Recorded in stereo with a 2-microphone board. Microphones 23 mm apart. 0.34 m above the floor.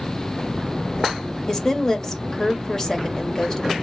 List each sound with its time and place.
1.5 s a woman speaking: 25° left (ahead or behind), 0.9 m